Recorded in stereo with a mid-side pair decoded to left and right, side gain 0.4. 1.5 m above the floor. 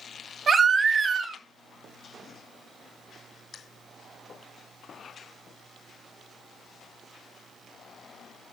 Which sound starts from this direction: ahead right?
A baby crying, at 0.5 s.